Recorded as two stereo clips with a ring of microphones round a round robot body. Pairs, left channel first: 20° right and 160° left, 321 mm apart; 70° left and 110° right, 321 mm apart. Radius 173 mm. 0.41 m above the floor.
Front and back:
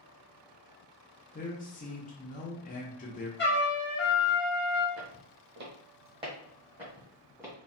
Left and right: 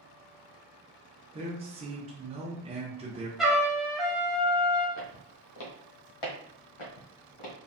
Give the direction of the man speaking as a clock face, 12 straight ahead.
2 o'clock.